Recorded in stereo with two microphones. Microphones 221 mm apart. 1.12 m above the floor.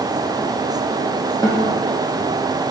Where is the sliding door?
I don't hear a sliding door.